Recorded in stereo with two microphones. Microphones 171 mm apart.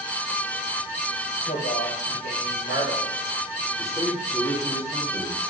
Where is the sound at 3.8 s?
35° left (ahead or behind), 4 m.